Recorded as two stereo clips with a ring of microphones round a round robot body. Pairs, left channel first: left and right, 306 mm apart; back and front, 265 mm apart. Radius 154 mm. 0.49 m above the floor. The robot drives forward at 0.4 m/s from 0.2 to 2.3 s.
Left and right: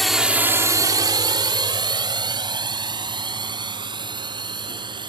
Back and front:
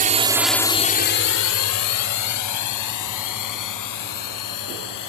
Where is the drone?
Straight ahead; by 5.1 s 165° right.